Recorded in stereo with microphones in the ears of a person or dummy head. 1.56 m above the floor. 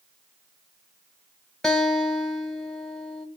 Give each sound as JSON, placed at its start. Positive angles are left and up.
{"t": 1.6, "sound": "a guitar", "side_deg": 5, "distance_m": 1.8}